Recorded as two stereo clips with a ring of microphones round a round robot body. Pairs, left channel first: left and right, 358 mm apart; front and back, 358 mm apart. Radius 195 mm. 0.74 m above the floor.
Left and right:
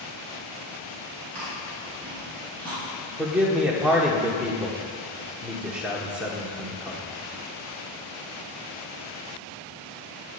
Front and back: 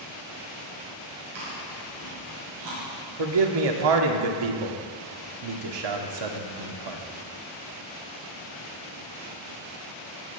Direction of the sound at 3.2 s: 175° right.